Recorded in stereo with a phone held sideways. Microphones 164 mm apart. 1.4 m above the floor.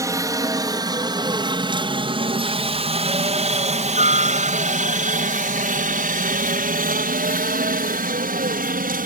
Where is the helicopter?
20° right (ahead or behind); by 9.1 s 60° right (ahead or behind).